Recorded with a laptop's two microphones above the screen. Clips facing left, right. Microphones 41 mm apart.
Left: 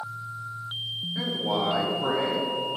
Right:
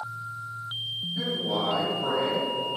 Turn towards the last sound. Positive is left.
turn(degrees=75)  # may be behind; listen again after turning